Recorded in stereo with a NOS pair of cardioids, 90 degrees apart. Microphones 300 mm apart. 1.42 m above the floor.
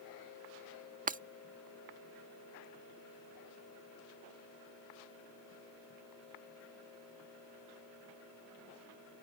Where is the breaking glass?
25° right.